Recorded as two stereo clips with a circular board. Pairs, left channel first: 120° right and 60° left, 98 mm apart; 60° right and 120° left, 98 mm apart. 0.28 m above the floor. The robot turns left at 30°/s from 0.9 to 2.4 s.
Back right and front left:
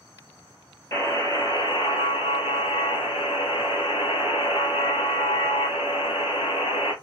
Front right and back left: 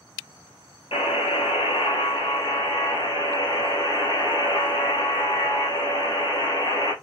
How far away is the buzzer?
About 1.0 m.